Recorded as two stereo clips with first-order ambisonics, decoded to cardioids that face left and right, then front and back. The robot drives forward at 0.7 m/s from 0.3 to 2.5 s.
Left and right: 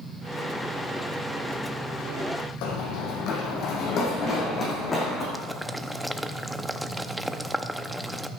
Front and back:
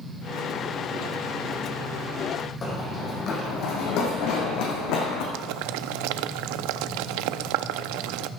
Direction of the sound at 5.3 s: Straight behind.